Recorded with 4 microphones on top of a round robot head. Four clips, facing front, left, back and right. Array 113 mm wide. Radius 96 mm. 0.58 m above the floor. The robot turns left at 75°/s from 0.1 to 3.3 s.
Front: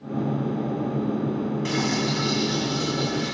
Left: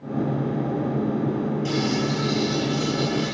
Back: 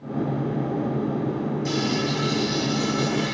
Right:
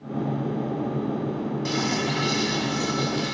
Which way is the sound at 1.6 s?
35° right.